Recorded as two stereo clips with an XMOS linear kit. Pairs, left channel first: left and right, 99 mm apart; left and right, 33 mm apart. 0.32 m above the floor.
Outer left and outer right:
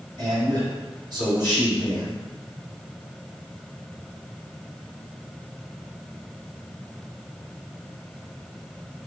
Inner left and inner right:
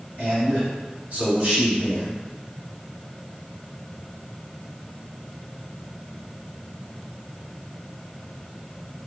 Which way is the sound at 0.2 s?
45° right (ahead or behind).